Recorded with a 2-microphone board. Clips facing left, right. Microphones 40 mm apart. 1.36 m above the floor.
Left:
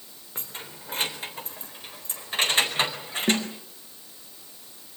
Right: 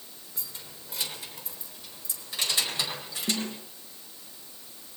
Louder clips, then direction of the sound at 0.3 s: Left 7 dB; 50° left (ahead or behind).